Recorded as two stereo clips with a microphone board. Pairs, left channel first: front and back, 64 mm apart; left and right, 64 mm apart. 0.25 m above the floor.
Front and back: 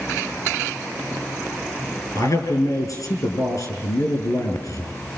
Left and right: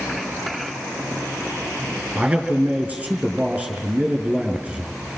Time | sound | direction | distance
2.1 | a man speaking | 20° right | 5.5 m